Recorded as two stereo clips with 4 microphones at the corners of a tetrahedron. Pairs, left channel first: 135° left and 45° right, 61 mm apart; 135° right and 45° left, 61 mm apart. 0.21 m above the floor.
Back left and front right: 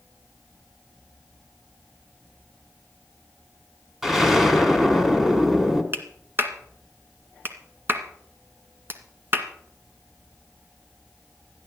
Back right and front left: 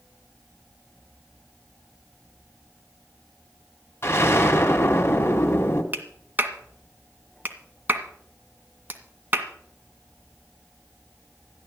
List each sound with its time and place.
4.0 s an explosion: 125° right, 2 m
5.9 s a clap: 5° right, 1.9 m